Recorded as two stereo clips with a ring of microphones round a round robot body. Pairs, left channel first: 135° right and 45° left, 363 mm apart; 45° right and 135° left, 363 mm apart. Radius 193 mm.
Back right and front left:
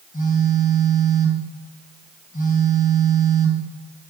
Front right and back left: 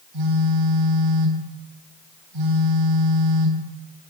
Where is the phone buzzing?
155° left, 3.5 m.